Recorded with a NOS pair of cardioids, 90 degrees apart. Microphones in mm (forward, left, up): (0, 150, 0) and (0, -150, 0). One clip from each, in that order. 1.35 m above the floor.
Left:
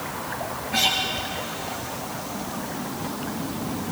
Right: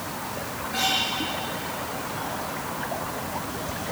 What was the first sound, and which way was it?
A guitar, 40° left.